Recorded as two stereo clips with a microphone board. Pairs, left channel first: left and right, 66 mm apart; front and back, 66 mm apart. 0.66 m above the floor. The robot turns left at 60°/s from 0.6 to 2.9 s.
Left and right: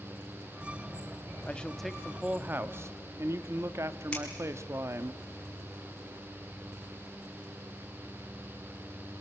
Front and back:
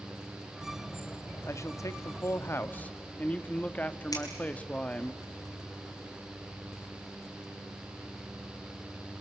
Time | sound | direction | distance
1.5 | a man speaking | 25° left | 0.9 m
4.1 | scissors | 15° left | 6 m